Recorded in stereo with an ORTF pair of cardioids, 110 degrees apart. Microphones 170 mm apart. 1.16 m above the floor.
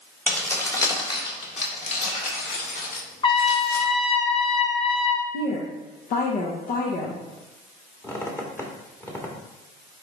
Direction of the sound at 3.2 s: 30° left.